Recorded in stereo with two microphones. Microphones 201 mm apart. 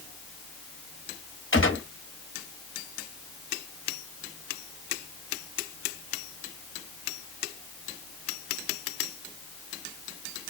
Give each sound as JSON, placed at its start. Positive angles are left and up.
{"t": 1.5, "sound": "a gunshot", "side_deg": 85, "distance_m": 1.7}